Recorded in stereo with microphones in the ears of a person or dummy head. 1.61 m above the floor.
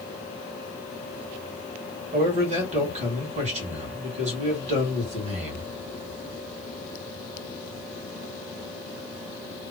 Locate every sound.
2.1 s a man speaking: 45° right (ahead or behind), 1.7 m